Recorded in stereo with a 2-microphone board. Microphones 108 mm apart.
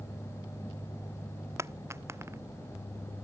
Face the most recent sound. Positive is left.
turn(degrees=-25)  # may be behind; listen again after turning